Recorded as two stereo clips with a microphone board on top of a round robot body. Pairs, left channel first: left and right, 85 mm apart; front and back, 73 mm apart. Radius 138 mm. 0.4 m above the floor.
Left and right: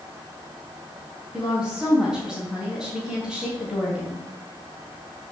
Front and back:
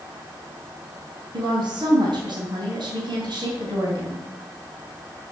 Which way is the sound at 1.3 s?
Straight behind.